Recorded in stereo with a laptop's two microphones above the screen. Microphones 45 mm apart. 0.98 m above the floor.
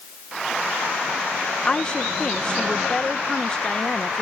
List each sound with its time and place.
1.6 s a woman speaking: 20° left (ahead or behind)